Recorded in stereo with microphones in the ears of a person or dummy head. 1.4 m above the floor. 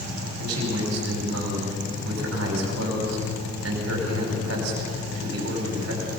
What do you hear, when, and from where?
0.4 s a man speaking: 85° right, 5.5 m